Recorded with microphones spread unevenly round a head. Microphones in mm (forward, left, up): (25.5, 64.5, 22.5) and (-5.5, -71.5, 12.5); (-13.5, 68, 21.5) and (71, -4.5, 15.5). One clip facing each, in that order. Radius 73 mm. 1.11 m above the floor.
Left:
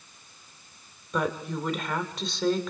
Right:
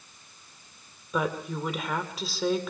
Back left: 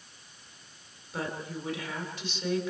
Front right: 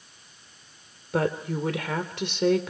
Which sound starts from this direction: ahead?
A woman speaking, at 1.1 s.